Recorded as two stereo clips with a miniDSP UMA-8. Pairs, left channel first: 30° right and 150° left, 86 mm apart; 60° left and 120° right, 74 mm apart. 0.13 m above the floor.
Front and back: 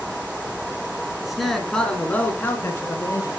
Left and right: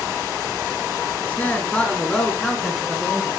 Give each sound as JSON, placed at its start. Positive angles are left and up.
{"t": 1.2, "sound": "a man speaking", "azimuth_deg": 70, "distance_m": 1.5}